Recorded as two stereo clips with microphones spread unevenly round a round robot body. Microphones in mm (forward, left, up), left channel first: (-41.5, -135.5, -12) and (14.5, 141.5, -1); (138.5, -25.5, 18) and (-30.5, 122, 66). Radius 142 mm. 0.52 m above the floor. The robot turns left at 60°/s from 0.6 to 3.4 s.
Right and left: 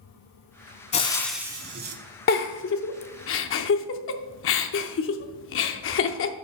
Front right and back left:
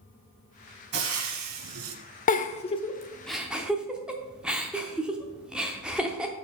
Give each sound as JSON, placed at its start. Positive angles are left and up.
{"t": 0.9, "sound": "frying", "azimuth_deg": -170, "distance_m": 1.0}
{"t": 2.3, "sound": "a giggle", "azimuth_deg": -55, "distance_m": 0.5}